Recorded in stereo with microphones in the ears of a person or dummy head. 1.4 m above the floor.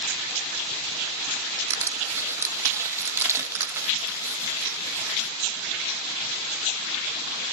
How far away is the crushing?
About 1.5 m.